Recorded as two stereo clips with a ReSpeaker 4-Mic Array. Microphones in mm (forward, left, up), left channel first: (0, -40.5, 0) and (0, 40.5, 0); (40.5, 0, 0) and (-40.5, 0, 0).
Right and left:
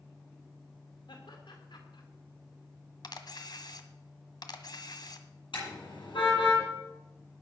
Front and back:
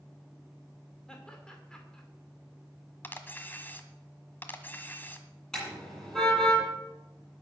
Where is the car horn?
85° right, 9 m.